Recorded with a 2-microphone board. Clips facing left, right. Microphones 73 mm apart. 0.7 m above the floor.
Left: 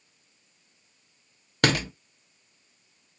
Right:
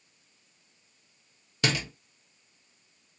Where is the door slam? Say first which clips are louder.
Left 5 dB; 55° left (ahead or behind), 0.8 m.